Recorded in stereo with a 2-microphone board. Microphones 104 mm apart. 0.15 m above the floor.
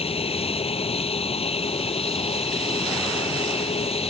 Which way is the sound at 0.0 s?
70° left (ahead or behind).